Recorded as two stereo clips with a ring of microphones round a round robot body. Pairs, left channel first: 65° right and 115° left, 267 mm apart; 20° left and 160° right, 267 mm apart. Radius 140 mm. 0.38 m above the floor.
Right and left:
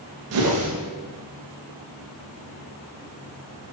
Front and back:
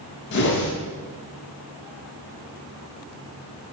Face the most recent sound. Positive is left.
turn(degrees=75)